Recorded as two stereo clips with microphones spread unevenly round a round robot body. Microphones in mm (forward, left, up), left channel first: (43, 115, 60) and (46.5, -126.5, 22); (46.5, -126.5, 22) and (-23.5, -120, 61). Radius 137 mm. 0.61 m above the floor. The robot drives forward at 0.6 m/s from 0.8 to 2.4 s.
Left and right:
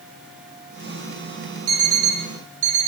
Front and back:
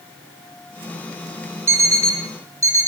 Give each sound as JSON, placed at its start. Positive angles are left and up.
{"t": 1.7, "sound": "an alarm clock", "azimuth_deg": -130, "distance_m": 1.7}